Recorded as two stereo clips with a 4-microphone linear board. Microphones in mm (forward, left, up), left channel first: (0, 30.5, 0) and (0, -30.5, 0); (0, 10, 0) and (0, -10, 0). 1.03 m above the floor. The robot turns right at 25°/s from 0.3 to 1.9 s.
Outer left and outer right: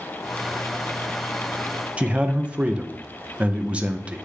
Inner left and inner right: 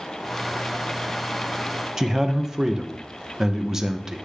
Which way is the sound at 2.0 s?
25° right (ahead or behind).